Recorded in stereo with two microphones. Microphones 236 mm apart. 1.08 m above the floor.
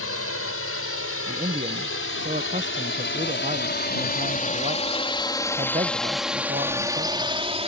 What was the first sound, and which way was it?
A drone, 75° left (ahead or behind).